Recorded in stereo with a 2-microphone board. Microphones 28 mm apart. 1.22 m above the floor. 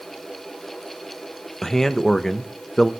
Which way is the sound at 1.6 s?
20° left (ahead or behind).